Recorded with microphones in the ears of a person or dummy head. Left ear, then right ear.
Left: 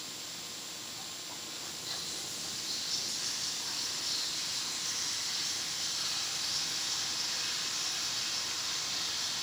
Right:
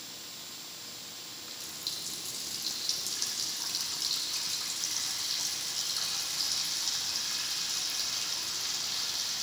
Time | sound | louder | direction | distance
1.4 | a running tap | right 5 dB | 80° right | 2.5 m